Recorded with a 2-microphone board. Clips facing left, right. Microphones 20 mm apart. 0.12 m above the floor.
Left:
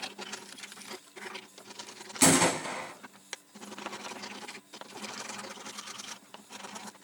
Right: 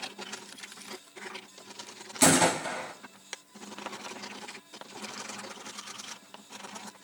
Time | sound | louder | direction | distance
2.2 | a gunshot | right 1 dB | centre (ahead or behind) | 1.1 m